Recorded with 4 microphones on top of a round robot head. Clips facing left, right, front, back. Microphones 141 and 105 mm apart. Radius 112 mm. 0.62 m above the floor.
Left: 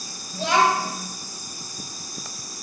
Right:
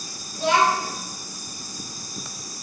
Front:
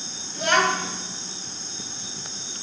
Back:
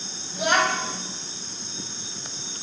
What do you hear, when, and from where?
0.3 s a child speaking: 100° left, 3 m